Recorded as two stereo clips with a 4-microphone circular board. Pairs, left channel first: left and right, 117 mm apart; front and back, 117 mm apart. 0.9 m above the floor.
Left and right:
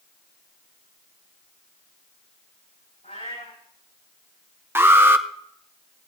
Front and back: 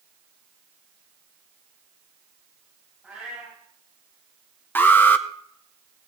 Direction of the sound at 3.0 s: 95° left.